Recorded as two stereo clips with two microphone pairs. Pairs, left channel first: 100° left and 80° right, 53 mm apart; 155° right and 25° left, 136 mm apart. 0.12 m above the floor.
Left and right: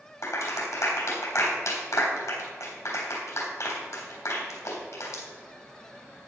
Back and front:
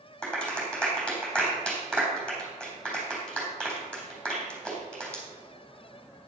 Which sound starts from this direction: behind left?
A clap, at 0.2 s.